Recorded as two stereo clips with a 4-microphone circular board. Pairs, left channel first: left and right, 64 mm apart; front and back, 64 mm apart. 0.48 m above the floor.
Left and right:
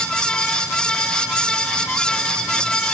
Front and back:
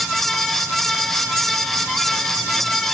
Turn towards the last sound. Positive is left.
No sound to turn to.